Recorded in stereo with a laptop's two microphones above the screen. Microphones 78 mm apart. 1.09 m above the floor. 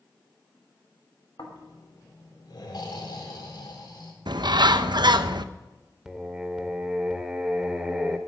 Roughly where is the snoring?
Left.